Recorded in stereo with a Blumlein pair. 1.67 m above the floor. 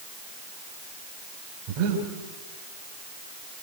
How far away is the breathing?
About 5 m.